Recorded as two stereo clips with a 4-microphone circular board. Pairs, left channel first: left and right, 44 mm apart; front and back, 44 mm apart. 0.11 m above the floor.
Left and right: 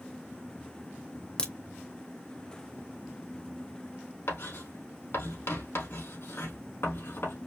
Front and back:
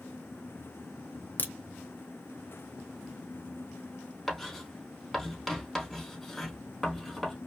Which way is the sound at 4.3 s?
85° left.